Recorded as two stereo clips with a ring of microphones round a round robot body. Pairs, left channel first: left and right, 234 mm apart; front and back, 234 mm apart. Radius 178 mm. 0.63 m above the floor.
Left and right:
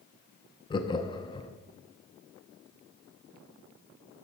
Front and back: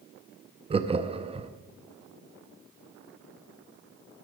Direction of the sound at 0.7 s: 140° left.